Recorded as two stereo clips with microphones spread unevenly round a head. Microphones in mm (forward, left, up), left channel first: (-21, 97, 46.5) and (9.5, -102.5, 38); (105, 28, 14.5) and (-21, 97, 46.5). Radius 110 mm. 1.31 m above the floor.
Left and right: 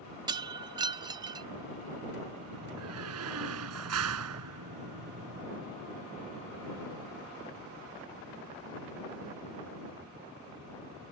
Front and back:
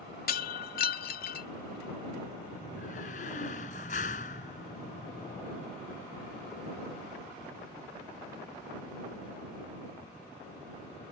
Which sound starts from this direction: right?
A door slam, at 2.5 s.